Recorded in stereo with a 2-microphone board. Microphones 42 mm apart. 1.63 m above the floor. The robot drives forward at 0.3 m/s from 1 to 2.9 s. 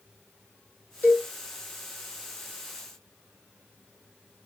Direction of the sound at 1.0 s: 45° left (ahead or behind).